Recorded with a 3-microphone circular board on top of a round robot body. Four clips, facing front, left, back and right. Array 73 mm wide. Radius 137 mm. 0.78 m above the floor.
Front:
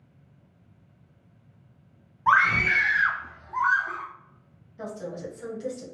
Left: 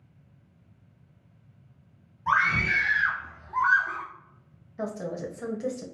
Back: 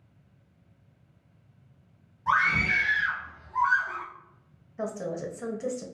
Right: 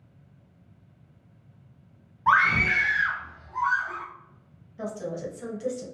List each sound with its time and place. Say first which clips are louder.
2.3 s a scream: right 3 dB, front 4 dB; 45° right, 1.2 m; by 4.0 s 60° left, 1.1 m
4.8 s a woman speaking: even, back 3 dB; 135° left, 1.1 m